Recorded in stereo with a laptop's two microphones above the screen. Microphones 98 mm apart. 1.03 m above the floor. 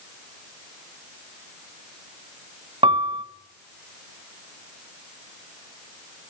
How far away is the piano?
About 1.2 m.